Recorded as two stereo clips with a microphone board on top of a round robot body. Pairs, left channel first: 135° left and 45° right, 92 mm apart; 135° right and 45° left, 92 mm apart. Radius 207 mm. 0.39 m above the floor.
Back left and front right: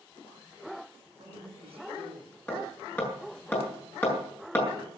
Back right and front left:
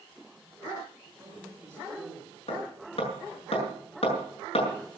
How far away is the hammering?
About 7.5 m.